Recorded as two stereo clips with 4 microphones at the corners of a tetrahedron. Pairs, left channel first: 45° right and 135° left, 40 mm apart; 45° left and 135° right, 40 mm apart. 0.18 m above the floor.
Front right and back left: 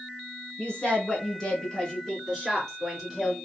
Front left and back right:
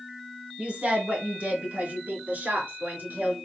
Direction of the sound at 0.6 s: 90° right.